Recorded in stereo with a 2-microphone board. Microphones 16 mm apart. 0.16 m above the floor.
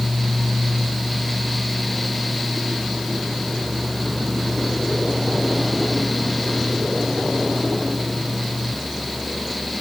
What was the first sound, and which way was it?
Only background noise.